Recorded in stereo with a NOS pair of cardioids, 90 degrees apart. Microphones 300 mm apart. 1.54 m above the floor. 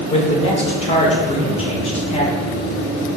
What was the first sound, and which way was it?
A man speaking, 20° left.